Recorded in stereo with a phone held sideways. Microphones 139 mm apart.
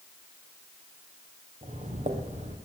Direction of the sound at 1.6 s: 55° right (ahead or behind).